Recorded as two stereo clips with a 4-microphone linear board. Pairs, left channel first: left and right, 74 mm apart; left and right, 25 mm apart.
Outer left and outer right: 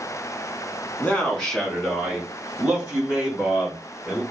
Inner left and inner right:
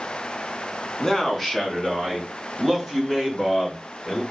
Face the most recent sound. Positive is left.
turn(degrees=-10)  # may be behind; listen again after turning